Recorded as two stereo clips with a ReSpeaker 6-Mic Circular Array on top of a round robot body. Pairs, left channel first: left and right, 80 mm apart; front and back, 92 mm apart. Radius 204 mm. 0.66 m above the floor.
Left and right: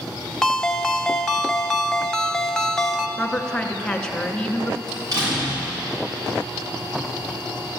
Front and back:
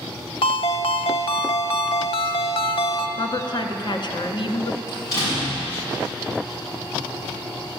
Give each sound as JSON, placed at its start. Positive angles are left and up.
{"t": 0.4, "sound": "a ringtone", "azimuth_deg": 10, "distance_m": 0.9}
{"t": 3.2, "sound": "a woman speaking", "azimuth_deg": 10, "distance_m": 1.8}
{"t": 4.9, "sound": "a door slam", "azimuth_deg": -50, "distance_m": 6.0}